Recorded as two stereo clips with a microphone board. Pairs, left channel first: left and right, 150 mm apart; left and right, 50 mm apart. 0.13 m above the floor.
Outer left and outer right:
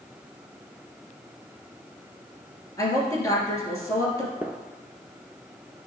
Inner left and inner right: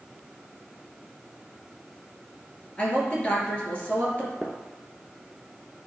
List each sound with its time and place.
2.8 s a woman speaking: 20° left (ahead or behind), 3 m
4.4 s a gunshot: 10° right (ahead or behind), 0.7 m